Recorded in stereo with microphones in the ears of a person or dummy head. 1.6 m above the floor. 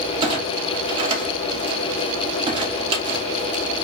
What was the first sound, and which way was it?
A clunk, 35° right (ahead or behind).